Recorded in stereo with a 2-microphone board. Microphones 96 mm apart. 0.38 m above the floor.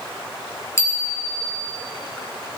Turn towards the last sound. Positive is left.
turn(degrees=30)  # may be behind; listen again after turning